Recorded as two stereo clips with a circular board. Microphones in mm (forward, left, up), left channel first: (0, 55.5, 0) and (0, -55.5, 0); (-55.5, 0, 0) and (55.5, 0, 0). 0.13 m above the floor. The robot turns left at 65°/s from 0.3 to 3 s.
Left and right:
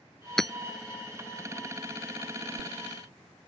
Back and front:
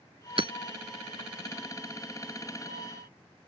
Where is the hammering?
5° left; by 0.5 s 5° right.